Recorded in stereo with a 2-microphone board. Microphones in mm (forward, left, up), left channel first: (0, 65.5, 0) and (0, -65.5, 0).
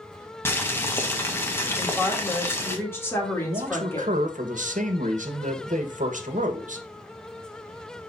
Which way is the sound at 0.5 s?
15° left (ahead or behind).